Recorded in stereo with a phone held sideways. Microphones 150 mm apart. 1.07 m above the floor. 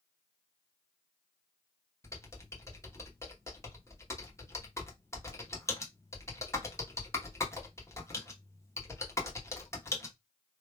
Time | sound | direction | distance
2.0 | typing on a keyboard | 20° left (ahead or behind) | 1.0 m